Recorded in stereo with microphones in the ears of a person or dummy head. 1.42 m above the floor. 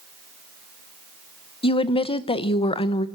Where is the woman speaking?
30° left (ahead or behind), 0.8 m.